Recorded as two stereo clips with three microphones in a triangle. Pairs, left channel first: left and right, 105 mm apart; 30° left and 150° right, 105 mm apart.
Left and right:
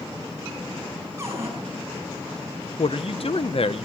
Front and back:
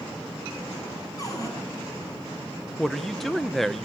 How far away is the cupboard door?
About 6 m.